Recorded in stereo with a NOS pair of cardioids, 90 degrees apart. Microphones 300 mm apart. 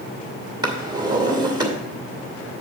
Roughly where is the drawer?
Ahead.